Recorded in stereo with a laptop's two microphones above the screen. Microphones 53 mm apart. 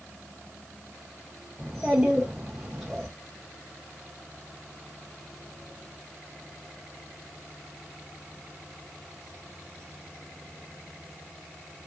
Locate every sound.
1.6 s a child speaking: 5° right (ahead or behind), 0.7 m